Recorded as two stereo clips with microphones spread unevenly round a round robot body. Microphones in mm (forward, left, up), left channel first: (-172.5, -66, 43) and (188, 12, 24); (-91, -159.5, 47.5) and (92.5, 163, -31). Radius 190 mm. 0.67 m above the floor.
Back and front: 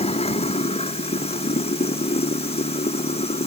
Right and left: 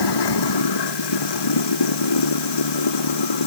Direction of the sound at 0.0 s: 95° right.